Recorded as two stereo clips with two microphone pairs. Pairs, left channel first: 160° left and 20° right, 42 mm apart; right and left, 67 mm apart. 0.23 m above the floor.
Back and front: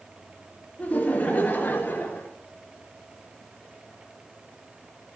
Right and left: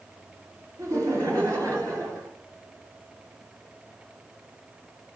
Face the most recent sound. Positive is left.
turn(degrees=120)